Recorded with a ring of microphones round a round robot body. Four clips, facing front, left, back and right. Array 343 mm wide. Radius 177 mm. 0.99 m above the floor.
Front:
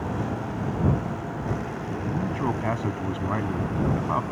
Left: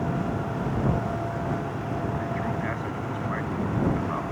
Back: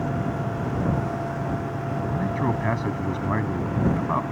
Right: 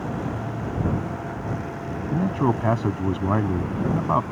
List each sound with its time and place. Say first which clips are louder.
2.1 s a man speaking: right 6 dB, back 1 dB; 95° right